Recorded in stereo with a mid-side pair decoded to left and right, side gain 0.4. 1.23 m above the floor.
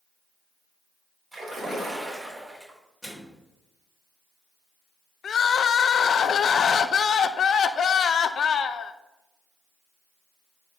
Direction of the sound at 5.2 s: 60° left.